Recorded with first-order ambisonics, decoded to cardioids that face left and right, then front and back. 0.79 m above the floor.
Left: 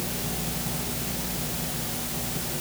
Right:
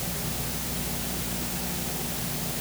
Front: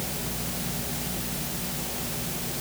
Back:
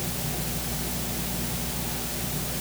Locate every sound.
Only background noise.